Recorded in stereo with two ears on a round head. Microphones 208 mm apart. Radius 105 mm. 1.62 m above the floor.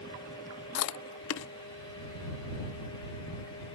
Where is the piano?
No piano in this recording.